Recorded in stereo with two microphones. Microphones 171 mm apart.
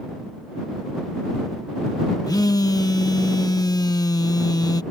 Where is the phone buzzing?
25° left (ahead or behind).